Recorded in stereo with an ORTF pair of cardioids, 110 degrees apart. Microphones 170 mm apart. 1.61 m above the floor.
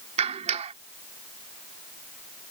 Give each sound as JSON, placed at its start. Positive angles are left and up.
{"t": 0.2, "sound": "a clap", "azimuth_deg": -40}